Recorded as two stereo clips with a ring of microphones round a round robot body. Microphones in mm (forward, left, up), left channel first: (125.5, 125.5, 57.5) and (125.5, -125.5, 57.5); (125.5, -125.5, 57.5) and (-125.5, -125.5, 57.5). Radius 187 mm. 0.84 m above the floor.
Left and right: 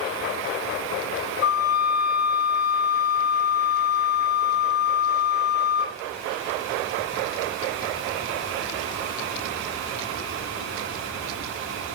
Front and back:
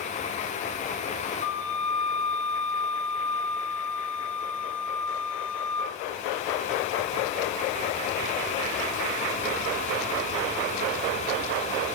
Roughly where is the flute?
Left.